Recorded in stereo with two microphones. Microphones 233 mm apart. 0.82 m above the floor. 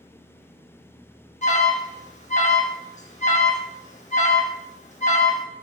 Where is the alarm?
30° left (ahead or behind), 1.4 m.